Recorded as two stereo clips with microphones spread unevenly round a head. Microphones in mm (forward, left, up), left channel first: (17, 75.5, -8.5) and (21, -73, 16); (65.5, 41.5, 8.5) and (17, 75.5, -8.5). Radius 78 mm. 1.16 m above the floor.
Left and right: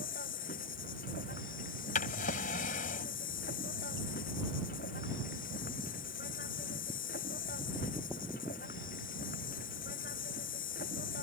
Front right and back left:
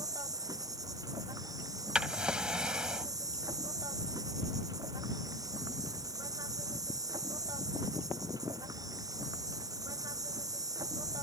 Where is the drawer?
60° left.